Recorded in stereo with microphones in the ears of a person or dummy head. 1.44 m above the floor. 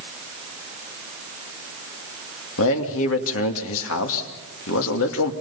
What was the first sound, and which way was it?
A man speaking, 65° left (ahead or behind).